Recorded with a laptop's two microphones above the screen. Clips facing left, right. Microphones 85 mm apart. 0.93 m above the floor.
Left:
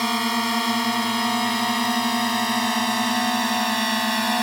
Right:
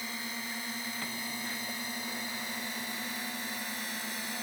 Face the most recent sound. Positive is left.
turn(degrees=80)